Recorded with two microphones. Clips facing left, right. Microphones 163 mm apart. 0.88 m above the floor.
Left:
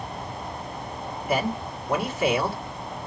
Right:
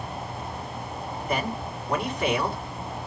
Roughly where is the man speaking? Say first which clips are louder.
Left 4 dB; centre.